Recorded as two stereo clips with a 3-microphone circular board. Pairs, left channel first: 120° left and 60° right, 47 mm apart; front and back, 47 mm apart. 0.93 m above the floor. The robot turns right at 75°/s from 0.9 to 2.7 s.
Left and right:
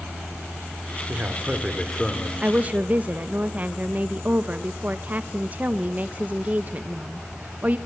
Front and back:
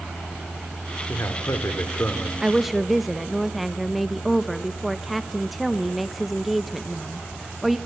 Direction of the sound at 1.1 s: 25° right.